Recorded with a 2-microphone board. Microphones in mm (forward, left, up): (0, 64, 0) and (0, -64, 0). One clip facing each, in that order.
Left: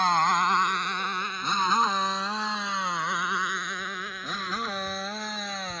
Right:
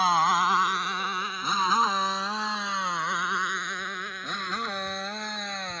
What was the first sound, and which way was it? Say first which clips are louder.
A motorcycle: even; 5° right (ahead or behind).